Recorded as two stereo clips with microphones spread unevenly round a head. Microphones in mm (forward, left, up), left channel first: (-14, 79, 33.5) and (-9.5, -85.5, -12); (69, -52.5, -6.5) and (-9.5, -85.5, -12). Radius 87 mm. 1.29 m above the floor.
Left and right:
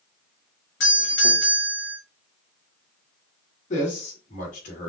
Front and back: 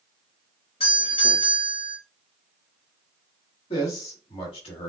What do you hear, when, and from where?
0.8 s a doorbell: 70° left, 3 m
3.7 s a man speaking: 40° left, 2 m